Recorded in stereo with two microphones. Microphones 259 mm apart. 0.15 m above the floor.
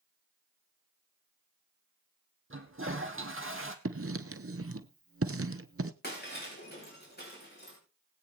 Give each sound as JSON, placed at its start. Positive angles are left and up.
{"t": 2.5, "sound": "a toilet flushing", "side_deg": -50, "distance_m": 1.6}
{"t": 3.9, "sound": "writing", "side_deg": -55, "distance_m": 0.8}
{"t": 6.0, "sound": "breaking glass", "side_deg": 35, "distance_m": 5.0}